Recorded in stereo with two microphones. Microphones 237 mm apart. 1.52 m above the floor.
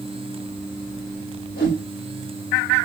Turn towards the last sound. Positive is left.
turn(degrees=45)  # may be behind; listen again after turning